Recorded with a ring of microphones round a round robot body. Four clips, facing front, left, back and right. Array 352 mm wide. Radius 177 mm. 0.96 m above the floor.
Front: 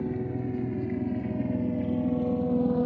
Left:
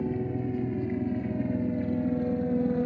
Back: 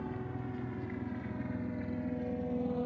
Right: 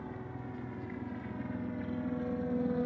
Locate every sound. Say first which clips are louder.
0.0 s a helicopter: left 13 dB, front 9 dB; 50° left; by 2.9 s 25° left